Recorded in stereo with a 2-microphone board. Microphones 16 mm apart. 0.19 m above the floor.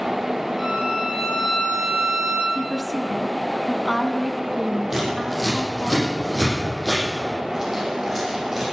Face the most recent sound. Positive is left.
turn(degrees=-20)  # may be behind; listen again after turning